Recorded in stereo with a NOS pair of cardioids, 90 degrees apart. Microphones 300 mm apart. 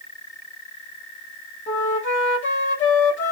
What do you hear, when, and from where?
1.7 s a flute: 35° left, 2 m